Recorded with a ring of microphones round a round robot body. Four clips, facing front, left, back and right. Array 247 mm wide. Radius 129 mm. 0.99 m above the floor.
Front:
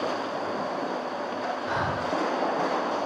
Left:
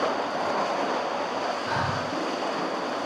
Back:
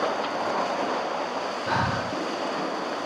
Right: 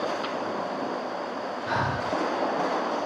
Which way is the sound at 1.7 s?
175° right.